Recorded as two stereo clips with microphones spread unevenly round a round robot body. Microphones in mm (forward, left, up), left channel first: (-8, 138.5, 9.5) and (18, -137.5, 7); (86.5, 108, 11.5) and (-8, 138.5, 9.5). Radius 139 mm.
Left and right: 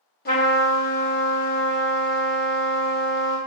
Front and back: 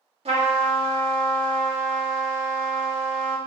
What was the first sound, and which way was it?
A trumpet, 150° left.